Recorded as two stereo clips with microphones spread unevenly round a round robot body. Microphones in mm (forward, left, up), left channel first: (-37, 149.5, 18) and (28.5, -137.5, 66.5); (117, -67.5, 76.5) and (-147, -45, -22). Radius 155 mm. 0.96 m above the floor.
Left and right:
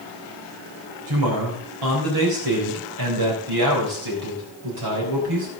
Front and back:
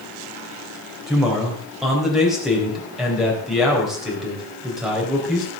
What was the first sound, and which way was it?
A man speaking, 95° right.